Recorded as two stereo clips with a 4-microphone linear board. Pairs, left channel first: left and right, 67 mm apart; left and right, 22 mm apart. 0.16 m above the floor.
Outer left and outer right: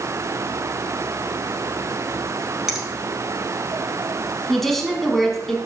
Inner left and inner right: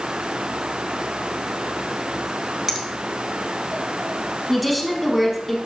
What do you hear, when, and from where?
2.7 s a finger snap: 10° right (ahead or behind), 1.9 m
4.5 s a woman speaking: 5° left (ahead or behind), 1.1 m